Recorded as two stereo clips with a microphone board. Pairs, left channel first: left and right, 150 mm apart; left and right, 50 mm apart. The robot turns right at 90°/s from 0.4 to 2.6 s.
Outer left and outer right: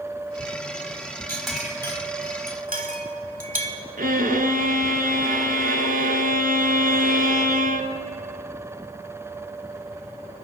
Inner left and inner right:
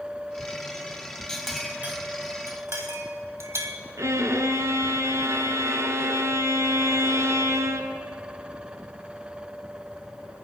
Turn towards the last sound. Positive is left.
turn(degrees=-80)